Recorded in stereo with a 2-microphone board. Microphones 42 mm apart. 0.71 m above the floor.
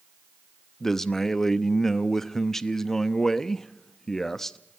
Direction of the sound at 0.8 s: 10° left (ahead or behind).